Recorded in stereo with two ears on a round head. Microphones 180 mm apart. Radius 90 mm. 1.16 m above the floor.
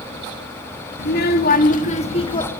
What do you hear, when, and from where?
1.0 s a child speaking: 55° left (ahead or behind), 2 m; by 2.5 s 20° left (ahead or behind), 1.7 m